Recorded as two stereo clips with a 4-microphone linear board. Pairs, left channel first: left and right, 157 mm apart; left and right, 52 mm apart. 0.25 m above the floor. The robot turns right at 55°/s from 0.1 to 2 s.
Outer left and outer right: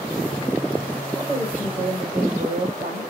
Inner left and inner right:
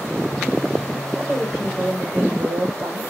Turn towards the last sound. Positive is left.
turn(degrees=-115)